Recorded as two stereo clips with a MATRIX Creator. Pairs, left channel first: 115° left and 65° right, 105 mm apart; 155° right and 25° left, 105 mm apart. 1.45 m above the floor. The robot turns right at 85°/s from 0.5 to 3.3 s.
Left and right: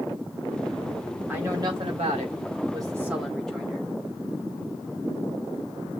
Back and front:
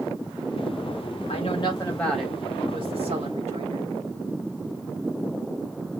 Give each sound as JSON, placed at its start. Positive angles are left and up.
{"t": 1.3, "sound": "a woman speaking", "azimuth_deg": -145, "distance_m": 2.0}